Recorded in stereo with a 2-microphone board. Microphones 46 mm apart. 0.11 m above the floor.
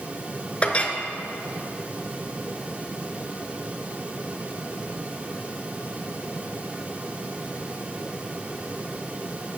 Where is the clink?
25° left (ahead or behind), 0.9 m.